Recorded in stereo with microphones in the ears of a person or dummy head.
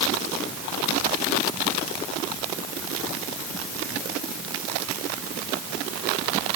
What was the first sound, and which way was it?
Only background noise.